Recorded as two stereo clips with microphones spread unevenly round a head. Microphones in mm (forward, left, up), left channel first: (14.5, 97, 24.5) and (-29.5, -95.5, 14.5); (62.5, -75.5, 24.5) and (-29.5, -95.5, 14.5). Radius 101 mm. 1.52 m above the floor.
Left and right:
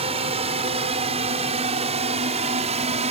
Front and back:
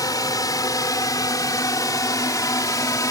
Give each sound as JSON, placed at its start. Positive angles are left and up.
{"t": 0.0, "sound": "a drone", "azimuth_deg": -40}